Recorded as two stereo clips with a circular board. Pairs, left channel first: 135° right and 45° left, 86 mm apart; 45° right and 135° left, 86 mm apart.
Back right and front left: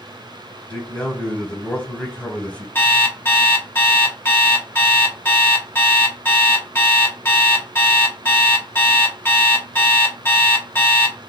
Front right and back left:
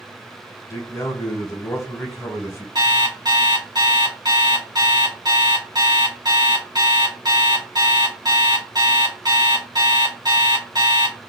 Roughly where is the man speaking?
Right.